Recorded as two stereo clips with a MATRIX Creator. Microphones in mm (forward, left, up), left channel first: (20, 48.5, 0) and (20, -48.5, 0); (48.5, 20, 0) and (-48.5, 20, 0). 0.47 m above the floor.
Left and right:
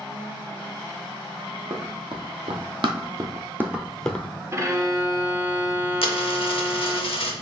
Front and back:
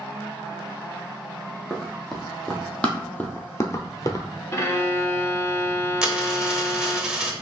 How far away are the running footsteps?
About 1.2 m.